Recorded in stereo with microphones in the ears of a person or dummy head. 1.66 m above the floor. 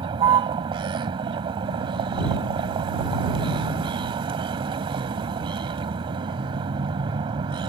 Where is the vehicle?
30° right (ahead or behind).